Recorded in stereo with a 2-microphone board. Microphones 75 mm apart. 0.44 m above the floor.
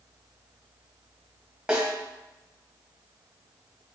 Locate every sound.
1.7 s a snare drum: 10° right (ahead or behind), 1.5 m